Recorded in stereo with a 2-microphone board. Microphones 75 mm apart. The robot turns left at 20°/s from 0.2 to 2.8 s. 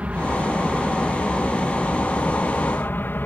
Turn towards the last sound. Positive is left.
turn(degrees=150)